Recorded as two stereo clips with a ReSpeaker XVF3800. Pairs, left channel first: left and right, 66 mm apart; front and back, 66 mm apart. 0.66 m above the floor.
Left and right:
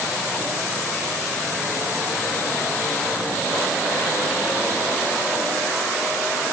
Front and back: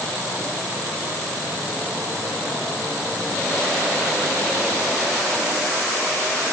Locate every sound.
Only background noise.